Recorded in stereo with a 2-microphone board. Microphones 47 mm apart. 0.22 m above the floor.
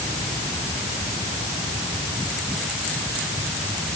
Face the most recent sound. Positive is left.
No sound to turn to.